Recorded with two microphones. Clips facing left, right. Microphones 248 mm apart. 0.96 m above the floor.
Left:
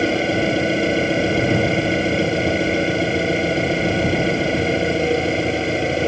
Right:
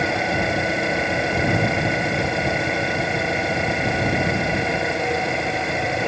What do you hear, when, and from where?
0.0 s an engine running: 30° left (ahead or behind)